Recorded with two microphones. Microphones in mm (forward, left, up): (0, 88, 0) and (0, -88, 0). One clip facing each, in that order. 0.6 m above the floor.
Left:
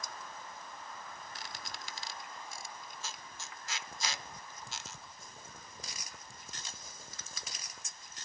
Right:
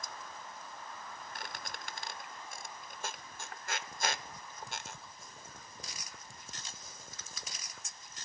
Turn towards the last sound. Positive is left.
turn(degrees=-60)  # may be behind; listen again after turning